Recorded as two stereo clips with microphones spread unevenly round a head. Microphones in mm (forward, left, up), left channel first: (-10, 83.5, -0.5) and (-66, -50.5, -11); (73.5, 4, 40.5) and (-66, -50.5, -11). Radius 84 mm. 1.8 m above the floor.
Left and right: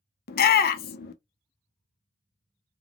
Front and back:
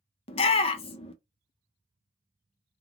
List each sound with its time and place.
0.3 s a shout: 65° left, 0.5 m